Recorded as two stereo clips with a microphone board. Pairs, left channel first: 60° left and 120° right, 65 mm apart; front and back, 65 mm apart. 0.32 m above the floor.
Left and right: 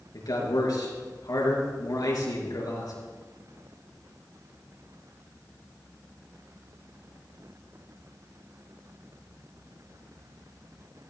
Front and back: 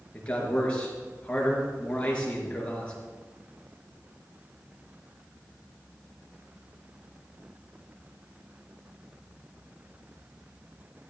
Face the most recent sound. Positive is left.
turn(degrees=70)